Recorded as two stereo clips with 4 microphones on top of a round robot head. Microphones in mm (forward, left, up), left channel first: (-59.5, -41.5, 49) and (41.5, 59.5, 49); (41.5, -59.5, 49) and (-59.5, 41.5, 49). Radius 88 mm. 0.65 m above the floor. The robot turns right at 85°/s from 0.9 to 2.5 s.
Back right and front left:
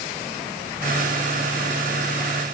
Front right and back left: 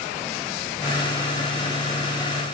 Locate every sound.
Only background noise.